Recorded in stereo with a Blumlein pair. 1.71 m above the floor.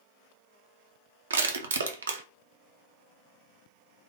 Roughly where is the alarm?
No alarm in this recording.